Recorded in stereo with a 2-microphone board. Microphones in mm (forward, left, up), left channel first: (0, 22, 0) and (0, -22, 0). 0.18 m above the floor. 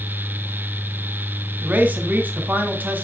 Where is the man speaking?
40° right (ahead or behind), 2 m.